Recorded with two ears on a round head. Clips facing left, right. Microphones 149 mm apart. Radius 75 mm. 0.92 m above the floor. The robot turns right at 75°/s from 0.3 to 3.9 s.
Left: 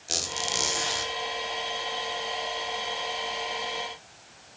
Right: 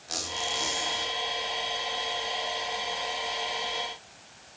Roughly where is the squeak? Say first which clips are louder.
Left 1 dB; ahead left.